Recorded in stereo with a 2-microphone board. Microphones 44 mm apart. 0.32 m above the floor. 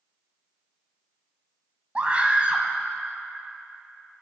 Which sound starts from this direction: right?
A scream, at 1.9 s.